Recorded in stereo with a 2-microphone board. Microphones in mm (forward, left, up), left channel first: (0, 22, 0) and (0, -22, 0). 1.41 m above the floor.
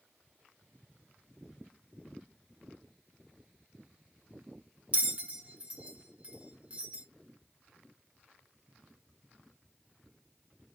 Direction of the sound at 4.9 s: 35° right (ahead or behind).